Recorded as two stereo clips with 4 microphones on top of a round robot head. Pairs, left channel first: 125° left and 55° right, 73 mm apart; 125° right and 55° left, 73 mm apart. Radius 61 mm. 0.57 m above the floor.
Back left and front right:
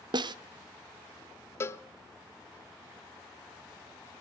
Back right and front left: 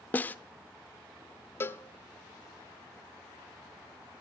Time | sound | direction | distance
0.1 | a snare drum | 60° right | 0.9 m
1.6 | a cowbell | 175° left | 0.8 m